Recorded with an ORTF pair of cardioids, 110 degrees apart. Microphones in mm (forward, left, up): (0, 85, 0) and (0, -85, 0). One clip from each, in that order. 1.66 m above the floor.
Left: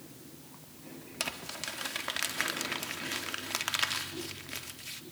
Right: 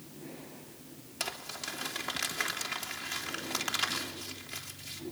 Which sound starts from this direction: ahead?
Crumpling, at 1.2 s.